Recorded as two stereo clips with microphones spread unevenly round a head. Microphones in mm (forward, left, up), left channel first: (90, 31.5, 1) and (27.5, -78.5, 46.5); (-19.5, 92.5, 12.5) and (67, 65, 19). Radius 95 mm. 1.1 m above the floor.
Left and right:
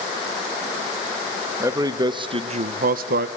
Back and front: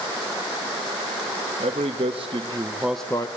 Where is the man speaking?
50° right, 1.7 m; by 3.3 s 140° right, 0.7 m.